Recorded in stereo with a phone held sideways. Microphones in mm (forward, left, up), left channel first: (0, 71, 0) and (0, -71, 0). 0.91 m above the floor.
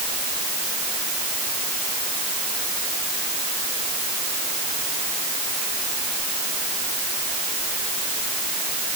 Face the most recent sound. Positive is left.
No sound to turn to.